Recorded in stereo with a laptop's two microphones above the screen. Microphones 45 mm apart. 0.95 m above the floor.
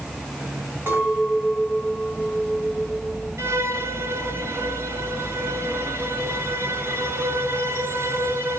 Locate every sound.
0.9 s a clink: 50° right (ahead or behind), 6.5 m
3.4 s a violin: 70° right (ahead or behind), 1.7 m